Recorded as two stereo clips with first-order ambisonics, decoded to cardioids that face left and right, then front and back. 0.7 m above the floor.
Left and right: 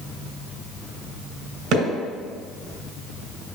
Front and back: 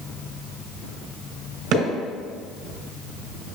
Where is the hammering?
135° right, 2.5 m.